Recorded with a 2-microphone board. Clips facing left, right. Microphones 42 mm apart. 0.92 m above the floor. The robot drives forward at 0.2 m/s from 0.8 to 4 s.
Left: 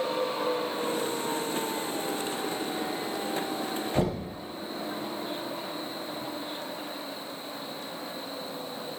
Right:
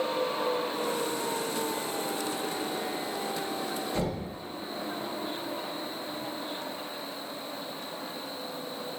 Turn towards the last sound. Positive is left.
turn(degrees=65)  # may be behind; listen again after turning